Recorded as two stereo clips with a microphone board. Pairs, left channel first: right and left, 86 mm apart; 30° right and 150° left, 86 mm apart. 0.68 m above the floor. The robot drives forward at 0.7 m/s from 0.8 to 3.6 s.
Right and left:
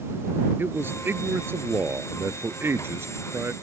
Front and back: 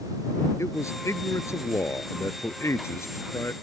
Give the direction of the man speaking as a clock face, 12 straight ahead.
11 o'clock.